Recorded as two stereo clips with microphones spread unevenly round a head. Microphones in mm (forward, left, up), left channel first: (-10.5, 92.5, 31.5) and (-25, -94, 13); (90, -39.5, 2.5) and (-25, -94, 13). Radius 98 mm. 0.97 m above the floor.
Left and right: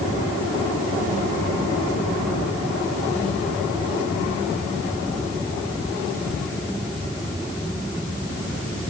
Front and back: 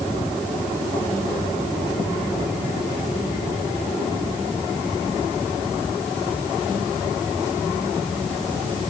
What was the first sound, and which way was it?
Only background noise.